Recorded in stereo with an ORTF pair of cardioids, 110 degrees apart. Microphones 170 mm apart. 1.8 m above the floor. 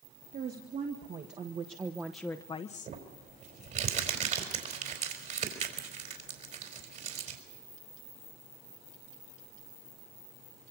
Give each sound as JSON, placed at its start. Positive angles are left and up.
{"t": 0.3, "sound": "a woman speaking", "azimuth_deg": -60, "distance_m": 3.0}
{"t": 2.9, "sound": "crumpling", "azimuth_deg": -50, "distance_m": 4.5}